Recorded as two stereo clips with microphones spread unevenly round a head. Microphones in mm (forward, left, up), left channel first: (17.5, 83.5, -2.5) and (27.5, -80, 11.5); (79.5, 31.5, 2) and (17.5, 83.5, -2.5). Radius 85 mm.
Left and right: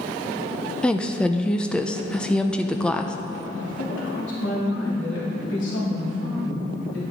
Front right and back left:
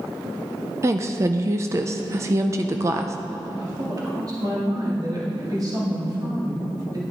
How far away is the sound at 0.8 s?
About 0.5 m.